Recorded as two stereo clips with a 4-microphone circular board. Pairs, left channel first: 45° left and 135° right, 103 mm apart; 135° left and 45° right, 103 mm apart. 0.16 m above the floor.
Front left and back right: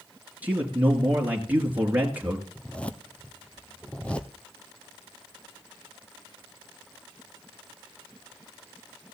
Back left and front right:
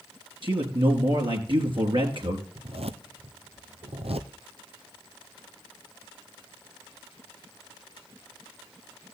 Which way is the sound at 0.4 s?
65° right.